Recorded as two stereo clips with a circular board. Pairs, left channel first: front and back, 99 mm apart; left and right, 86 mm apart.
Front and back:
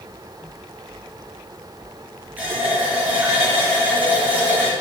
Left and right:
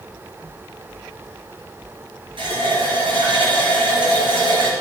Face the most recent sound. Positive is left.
turn(degrees=-110)